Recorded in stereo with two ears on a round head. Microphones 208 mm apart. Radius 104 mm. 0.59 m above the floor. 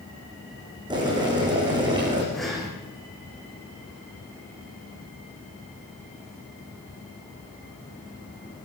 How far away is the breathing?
About 7 m.